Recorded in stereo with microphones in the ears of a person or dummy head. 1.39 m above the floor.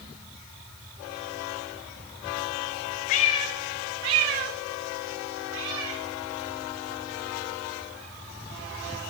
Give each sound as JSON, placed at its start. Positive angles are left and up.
{"t": 3.1, "sound": "a cat meowing", "side_deg": 40, "distance_m": 0.7}